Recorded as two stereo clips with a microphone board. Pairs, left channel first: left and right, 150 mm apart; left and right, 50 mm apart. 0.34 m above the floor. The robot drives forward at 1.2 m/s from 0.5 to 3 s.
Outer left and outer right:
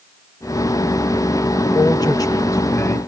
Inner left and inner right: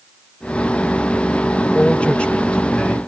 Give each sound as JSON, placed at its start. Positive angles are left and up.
{"t": 1.6, "sound": "a man speaking", "side_deg": 30, "distance_m": 1.5}